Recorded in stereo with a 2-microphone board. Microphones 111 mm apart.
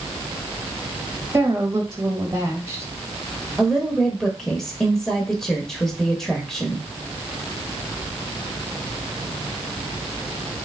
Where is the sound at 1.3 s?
25° right (ahead or behind), 1.1 m.